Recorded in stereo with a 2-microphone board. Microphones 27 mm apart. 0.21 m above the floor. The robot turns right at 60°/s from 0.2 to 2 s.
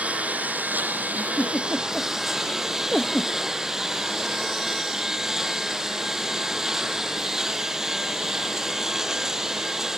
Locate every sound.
0.0 s a lawn mower: 120° right; by 10.0 s 15° right
1.1 s a giggle: 70° left (ahead or behind); by 3.3 s 25° left (ahead or behind)